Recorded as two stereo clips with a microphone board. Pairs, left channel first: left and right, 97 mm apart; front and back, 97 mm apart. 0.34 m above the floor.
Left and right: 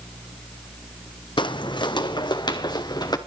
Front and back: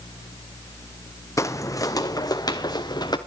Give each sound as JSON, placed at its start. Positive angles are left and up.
{"t": 1.4, "sound": "footsteps", "azimuth_deg": 60, "distance_m": 0.8}